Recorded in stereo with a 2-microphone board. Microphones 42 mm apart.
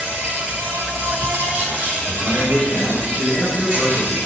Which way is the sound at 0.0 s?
35° right (ahead or behind).